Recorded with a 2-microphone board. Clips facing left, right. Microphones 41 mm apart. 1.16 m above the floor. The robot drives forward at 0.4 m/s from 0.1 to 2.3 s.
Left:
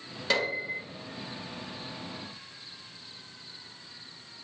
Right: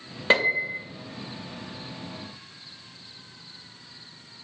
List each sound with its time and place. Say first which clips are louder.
0.3 s a piano: right 7 dB; 30° right (ahead or behind), 0.6 m; by 0.8 s 40° right (ahead or behind), 0.5 m